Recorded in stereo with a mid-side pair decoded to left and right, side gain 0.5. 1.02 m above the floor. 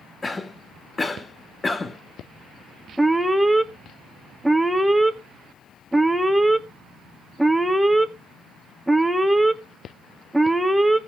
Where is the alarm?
5° right, 1.4 m.